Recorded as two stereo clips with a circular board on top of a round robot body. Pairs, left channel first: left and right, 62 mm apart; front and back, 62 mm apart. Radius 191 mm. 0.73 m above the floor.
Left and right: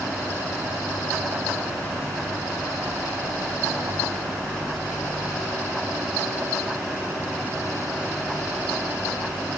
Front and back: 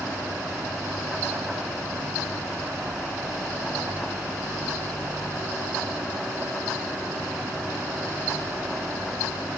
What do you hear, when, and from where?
Only background noise.